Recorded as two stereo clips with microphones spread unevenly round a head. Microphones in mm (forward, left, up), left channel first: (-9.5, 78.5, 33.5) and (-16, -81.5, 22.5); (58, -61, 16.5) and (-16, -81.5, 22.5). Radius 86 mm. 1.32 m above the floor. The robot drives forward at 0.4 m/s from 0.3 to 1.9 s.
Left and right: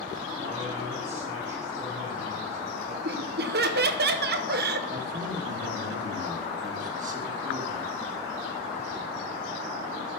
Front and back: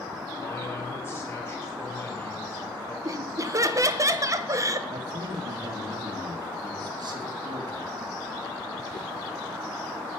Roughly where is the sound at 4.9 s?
Behind right.